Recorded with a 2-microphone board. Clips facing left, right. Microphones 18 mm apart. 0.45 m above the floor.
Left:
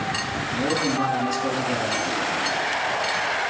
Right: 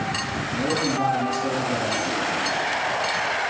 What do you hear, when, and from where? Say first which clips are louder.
0.5 s a man speaking: even; 60° left (ahead or behind), 4 m